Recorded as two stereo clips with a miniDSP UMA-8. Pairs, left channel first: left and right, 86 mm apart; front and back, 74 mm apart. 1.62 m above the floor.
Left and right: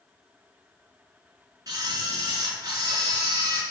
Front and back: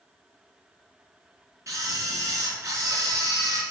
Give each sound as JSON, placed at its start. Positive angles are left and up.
{"t": 1.7, "sound": "a camera shutter", "azimuth_deg": -135, "distance_m": 4.5}